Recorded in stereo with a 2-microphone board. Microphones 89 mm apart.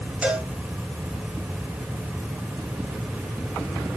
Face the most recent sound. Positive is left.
turn(degrees=-10)  # may be behind; listen again after turning